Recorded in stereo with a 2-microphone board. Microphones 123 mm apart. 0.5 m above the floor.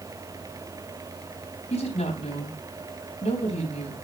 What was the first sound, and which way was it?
A woman speaking, 65° left (ahead or behind).